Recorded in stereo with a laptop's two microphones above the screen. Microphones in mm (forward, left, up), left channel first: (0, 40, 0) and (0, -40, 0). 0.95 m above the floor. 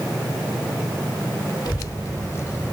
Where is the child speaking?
55° left (ahead or behind), 1.3 m; by 2.7 s 30° left (ahead or behind), 2.5 m.